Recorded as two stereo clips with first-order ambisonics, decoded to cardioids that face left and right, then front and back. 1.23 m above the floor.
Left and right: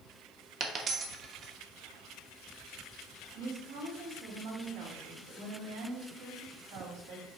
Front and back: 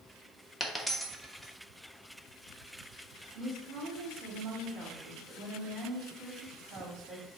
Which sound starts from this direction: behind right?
A woman speaking, at 3.4 s.